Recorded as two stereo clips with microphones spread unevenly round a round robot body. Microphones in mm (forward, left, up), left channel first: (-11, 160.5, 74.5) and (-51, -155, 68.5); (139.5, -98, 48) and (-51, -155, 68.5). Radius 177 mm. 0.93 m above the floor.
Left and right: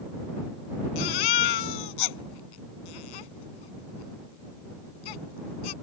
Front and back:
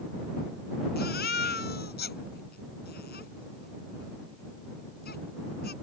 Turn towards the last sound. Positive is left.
turn(degrees=80)